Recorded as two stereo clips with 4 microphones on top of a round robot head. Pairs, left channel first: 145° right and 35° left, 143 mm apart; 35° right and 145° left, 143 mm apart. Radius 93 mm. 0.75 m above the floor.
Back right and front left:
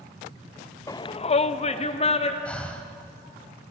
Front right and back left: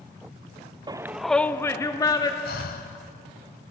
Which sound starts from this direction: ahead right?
Breathing, at 2.5 s.